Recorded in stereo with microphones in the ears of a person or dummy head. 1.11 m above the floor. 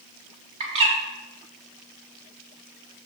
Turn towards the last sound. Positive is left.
turn(degrees=-35)  # may be behind; listen again after turning